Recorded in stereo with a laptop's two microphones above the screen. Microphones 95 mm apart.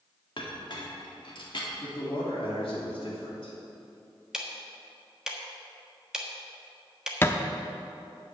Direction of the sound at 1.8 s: 65° left (ahead or behind).